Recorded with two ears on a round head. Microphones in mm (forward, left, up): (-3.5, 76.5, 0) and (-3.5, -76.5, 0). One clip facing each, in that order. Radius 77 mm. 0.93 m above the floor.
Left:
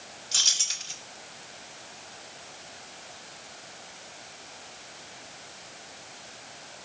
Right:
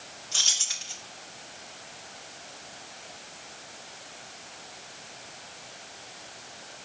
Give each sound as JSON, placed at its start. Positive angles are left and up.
{"t": 0.3, "sound": "keys jangling", "side_deg": 45, "distance_m": 2.5}